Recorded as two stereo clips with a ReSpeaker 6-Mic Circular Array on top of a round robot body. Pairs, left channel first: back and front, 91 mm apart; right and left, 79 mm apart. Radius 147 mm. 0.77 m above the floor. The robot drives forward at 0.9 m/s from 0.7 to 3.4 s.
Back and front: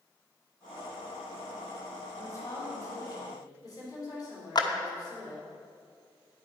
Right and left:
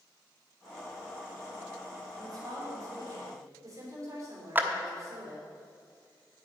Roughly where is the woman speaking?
Behind left.